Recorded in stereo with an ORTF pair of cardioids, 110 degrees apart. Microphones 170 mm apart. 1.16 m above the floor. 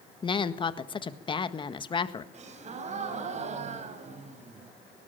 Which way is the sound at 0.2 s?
30° left.